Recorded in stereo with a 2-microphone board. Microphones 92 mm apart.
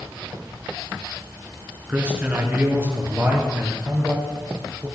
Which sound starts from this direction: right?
A man speaking, at 1.9 s.